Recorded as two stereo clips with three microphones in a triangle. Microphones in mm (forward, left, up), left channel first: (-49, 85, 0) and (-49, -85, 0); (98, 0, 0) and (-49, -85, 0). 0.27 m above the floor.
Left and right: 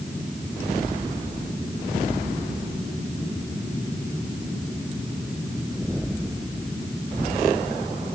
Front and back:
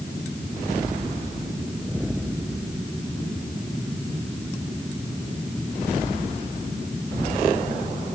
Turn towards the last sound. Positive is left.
No sound to turn to.